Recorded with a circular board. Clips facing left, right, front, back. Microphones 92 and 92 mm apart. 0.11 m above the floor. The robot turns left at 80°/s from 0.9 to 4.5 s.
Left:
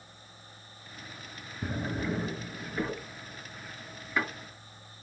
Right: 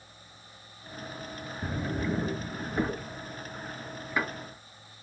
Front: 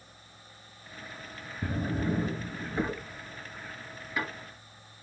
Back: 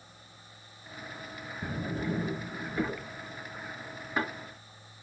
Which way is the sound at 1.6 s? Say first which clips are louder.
Right 1 dB, front 3 dB; 45° left.